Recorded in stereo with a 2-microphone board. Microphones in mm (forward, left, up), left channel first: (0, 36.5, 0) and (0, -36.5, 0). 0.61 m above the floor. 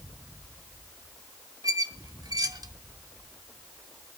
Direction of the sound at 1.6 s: 60° right (ahead or behind).